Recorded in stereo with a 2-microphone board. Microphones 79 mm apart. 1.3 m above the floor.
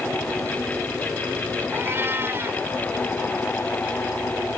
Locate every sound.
1.7 s a cat meowing: 30° right (ahead or behind)